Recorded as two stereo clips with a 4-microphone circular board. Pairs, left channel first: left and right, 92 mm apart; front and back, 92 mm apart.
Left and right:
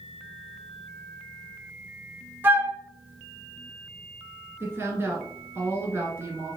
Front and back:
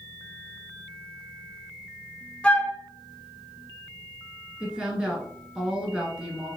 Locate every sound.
2.4 s a flute: 60° right, 0.6 m
4.6 s a woman speaking: 110° right, 1.6 m